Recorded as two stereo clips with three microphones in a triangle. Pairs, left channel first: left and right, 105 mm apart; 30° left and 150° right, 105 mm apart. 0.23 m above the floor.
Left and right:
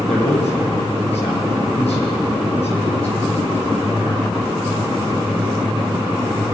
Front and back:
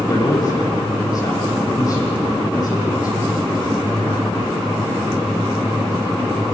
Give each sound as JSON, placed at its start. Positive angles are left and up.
{"t": 0.1, "sound": "a man speaking", "azimuth_deg": 85, "distance_m": 8.5}